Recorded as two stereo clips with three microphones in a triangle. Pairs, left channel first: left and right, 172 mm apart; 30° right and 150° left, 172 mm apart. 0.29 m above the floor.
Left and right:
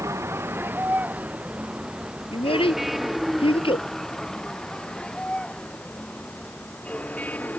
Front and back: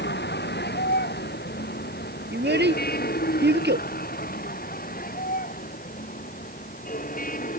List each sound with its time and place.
0.0 s a vehicle: 15° right; by 7.6 s 10° left
2.3 s a child speaking: 150° left